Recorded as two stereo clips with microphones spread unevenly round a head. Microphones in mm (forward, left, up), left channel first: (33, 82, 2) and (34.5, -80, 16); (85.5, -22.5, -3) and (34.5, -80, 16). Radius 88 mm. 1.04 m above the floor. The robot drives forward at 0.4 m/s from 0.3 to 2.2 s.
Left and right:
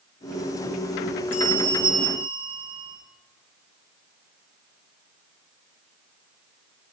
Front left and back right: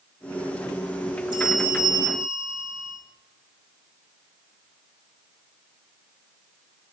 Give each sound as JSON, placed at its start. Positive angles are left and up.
{"t": 1.3, "sound": "a bell", "azimuth_deg": -150, "distance_m": 3.0}